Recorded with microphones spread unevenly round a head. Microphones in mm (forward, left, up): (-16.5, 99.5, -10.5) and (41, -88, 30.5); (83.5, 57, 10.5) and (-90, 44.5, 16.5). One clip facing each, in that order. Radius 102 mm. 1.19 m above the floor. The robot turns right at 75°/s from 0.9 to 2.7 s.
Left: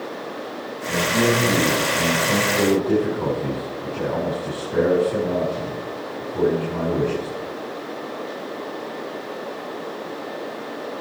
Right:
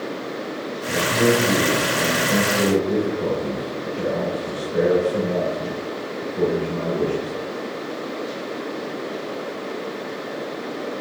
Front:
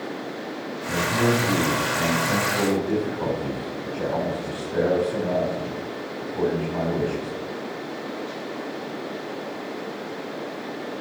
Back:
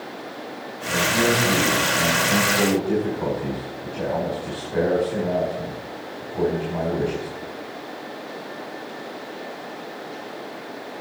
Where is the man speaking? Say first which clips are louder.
Right 1 dB, back 1 dB; 35° right, 5 m; by 7.3 s 100° left, 5 m.